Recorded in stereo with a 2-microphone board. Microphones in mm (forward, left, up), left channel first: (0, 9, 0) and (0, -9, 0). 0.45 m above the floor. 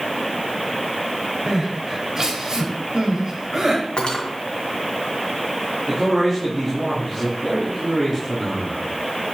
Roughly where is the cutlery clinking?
Left.